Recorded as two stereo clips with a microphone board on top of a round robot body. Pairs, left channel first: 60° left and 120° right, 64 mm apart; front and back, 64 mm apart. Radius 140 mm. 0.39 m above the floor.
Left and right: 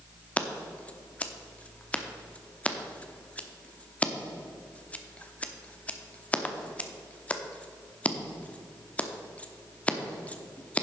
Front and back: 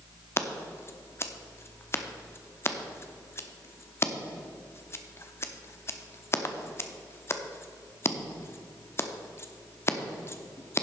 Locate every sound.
0.4 s scissors: 5° left, 1.0 m